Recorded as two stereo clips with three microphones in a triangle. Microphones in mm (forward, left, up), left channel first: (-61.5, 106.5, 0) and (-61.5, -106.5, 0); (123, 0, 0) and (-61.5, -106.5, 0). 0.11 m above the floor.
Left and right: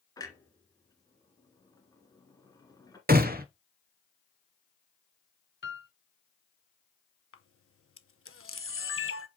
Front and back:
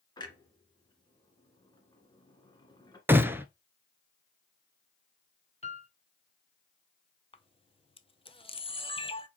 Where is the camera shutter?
90° left, 0.6 m.